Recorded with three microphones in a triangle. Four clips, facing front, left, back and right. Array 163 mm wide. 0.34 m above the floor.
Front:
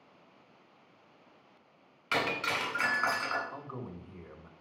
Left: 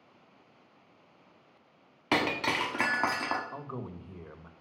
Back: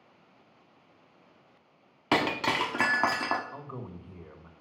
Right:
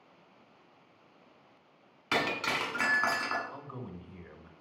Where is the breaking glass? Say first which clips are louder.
Left 3 dB, back 5 dB; 160° left, 1.1 m.